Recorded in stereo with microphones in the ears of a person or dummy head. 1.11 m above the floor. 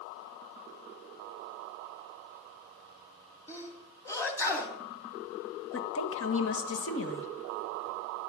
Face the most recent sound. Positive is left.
turn(degrees=65)  # may be behind; listen again after turning